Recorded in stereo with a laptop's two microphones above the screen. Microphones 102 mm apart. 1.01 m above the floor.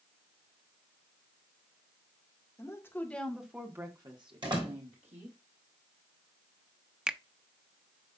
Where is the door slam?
50° right (ahead or behind), 3.5 m.